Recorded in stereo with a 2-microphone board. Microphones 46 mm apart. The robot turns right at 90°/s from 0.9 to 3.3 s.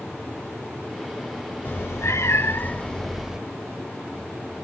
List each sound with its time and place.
1.6 s a cat meowing: 45° left, 0.9 m; by 3.4 s 165° right, 0.9 m